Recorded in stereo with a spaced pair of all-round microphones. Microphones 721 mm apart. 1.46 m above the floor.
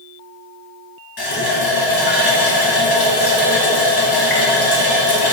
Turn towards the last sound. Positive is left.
turn(degrees=30)  # may be behind; listen again after turning